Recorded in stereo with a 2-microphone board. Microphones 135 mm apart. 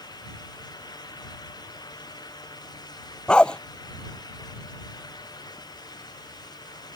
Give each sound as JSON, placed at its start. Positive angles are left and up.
{"t": 3.3, "sound": "a dog barking", "side_deg": 5}